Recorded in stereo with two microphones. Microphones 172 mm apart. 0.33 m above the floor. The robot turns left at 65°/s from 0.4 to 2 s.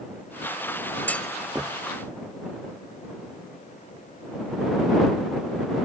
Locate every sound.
1.1 s a clunk: 10° left (ahead or behind); by 1.7 s 20° right (ahead or behind)